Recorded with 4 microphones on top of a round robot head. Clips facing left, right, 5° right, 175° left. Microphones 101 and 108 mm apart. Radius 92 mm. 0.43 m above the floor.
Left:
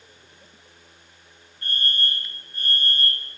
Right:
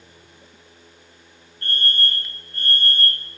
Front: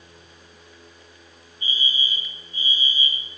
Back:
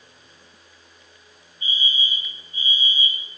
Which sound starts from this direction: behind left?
A fire alarm, at 1.6 s.